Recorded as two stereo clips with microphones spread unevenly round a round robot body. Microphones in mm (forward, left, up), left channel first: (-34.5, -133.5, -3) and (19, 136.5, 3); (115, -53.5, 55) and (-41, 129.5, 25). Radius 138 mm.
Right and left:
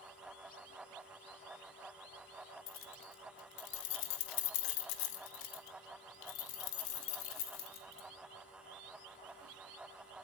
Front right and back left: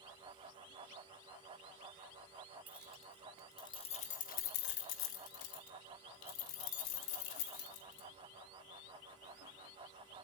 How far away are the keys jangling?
About 1.6 m.